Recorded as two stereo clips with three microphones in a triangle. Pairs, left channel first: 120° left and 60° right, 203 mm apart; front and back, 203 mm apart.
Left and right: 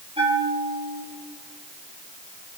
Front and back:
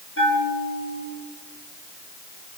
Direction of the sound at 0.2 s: Straight ahead.